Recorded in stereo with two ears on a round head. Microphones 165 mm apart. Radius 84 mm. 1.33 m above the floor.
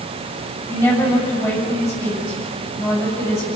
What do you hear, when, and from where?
0.7 s a woman speaking: 15° left (ahead or behind), 6.5 m